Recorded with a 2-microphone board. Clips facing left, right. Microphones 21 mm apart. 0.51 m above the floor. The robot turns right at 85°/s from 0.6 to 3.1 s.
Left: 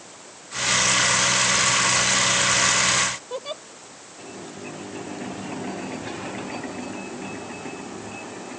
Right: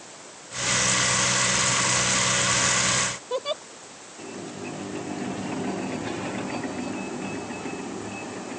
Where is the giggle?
10° right (ahead or behind).